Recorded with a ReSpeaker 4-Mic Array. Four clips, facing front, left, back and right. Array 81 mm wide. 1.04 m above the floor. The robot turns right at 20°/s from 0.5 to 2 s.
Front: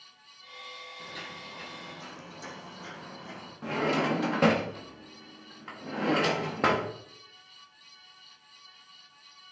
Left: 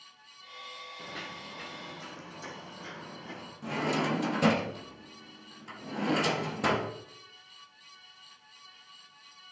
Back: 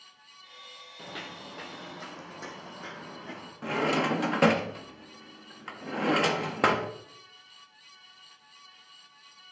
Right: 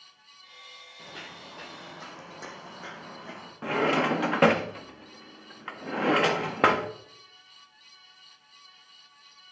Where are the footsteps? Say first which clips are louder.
Even, back 3 dB; straight behind, 1.5 m; by 3.5 s 110° right, 3 m.